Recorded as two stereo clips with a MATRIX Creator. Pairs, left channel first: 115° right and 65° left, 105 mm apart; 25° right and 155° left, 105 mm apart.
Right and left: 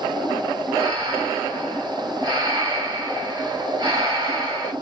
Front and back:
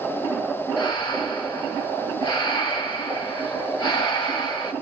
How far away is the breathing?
About 1.7 m.